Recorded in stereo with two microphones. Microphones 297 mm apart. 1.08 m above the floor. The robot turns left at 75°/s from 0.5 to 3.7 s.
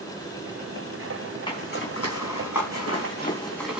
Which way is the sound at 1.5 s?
15° left (ahead or behind).